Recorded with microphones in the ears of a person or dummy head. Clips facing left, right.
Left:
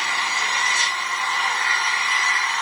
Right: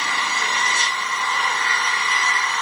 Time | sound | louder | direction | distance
0.0 | an engine running | right 2 dB | 75° right (ahead or behind) | 3 m